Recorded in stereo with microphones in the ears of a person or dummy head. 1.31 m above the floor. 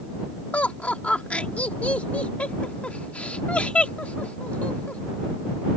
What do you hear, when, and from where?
0.5 s laughter: 5° left (ahead or behind)